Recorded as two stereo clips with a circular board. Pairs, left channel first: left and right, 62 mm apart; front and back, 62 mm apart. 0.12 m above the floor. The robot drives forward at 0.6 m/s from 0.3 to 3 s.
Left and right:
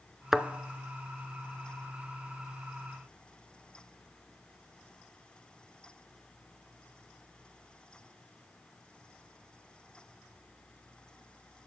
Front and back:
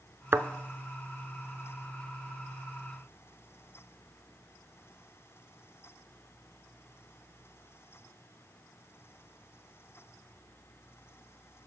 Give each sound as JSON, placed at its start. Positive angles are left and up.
{"t": 0.3, "sound": "a thud", "azimuth_deg": -175, "distance_m": 0.5}